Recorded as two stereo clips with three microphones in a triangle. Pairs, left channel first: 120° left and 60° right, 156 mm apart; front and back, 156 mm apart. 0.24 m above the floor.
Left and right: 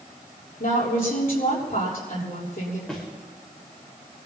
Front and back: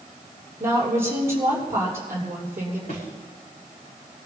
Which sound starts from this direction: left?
A woman speaking, at 0.6 s.